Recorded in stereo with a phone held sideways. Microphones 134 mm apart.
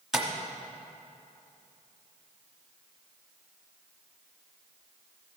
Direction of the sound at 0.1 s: 5° right (ahead or behind).